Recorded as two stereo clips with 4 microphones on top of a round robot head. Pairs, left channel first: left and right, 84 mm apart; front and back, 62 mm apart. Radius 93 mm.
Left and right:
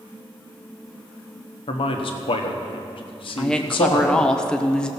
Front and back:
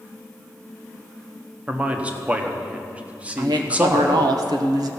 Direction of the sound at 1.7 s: 110° left.